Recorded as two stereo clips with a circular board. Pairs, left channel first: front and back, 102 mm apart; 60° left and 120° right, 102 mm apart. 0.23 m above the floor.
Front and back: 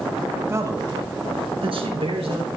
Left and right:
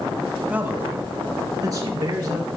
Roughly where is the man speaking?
Behind.